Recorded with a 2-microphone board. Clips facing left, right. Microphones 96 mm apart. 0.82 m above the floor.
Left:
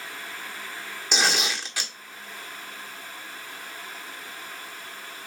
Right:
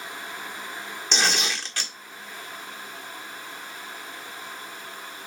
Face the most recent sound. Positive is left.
turn(degrees=10)  # may be behind; listen again after turning